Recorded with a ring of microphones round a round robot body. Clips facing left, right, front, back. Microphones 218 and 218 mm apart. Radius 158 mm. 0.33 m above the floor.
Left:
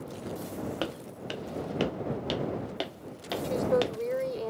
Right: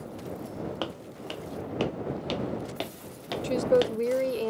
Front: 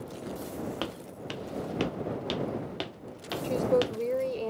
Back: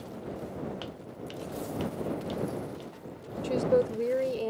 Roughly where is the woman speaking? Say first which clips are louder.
Right 4 dB, back 1 dB; right.